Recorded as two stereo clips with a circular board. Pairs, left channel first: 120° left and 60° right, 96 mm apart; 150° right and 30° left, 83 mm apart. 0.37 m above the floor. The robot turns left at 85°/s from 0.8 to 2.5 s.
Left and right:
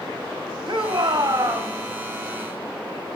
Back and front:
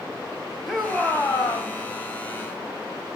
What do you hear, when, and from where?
0.7 s a shout: 60° right, 2.5 m; by 1.7 s 135° right, 2.5 m